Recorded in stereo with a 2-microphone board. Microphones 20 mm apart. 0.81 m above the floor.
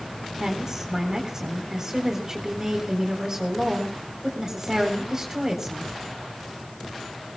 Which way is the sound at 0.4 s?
25° right (ahead or behind).